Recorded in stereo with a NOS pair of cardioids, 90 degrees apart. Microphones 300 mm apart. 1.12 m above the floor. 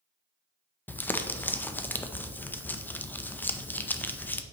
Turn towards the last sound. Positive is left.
turn(degrees=5)